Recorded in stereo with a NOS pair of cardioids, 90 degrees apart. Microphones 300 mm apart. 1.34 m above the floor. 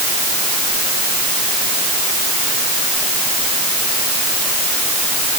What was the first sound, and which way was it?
Only background noise.